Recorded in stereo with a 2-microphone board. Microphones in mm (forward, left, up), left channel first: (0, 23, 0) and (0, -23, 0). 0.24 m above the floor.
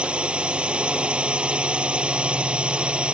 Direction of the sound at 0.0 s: 25° right (ahead or behind).